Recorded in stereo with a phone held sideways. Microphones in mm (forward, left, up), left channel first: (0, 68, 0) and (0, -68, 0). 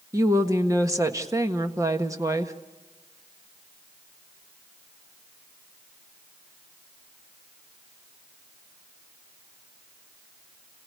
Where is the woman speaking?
25° right (ahead or behind), 1.5 m.